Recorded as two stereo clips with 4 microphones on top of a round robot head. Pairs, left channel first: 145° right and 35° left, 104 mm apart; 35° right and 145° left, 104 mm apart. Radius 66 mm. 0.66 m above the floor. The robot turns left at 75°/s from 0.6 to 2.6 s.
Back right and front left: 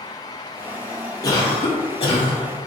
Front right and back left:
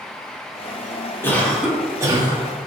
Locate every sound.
1.2 s a cough: 100° right, 2.5 m; by 2.4 s 175° left, 2.5 m